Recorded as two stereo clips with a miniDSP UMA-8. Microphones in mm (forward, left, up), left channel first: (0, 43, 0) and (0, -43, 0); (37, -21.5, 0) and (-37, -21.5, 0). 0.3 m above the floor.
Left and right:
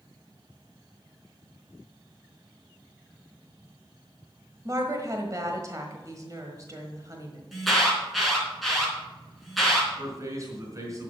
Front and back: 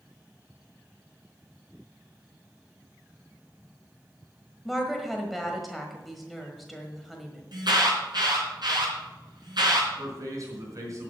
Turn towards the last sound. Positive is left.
turn(degrees=-140)